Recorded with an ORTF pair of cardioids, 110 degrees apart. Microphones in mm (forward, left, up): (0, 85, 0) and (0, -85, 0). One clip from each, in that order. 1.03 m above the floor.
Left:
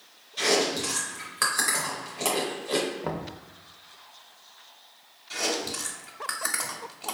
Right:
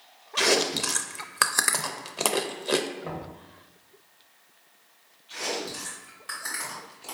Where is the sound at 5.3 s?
65° left, 1.1 m.